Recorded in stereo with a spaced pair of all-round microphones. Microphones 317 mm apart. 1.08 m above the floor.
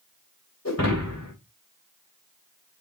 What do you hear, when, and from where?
0.7 s breaking glass: 55° left (ahead or behind), 3 m